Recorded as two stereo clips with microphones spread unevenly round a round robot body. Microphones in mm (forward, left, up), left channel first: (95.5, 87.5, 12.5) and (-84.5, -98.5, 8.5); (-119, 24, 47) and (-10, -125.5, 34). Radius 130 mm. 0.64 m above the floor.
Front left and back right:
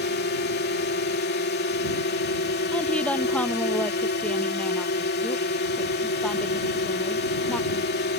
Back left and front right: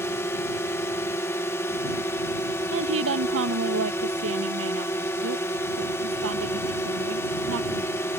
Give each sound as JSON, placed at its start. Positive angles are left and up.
{"t": 0.0, "sound": "a drone", "azimuth_deg": 50}
{"t": 2.7, "sound": "a woman speaking", "azimuth_deg": -40}